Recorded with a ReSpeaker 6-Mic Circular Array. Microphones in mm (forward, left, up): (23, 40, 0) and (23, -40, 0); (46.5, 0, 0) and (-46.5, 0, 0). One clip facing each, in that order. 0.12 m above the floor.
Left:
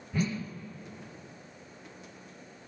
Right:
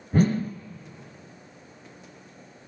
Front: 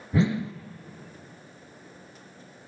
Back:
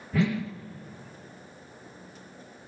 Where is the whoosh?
65° right, 0.9 m.